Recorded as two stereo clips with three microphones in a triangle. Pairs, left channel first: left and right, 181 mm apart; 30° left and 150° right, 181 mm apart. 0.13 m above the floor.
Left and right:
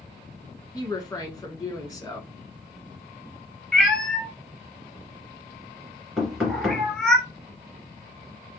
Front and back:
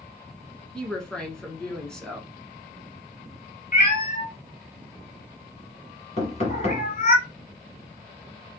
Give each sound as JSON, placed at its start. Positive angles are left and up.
{"t": 0.7, "sound": "a woman speaking", "azimuth_deg": 110, "distance_m": 1.1}
{"t": 3.7, "sound": "a cat meowing", "azimuth_deg": 5, "distance_m": 1.1}
{"t": 6.2, "sound": "knocking", "azimuth_deg": 0, "distance_m": 1.9}